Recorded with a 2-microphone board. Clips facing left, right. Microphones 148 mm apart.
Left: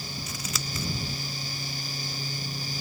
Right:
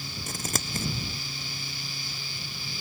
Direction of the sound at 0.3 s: 50° right (ahead or behind).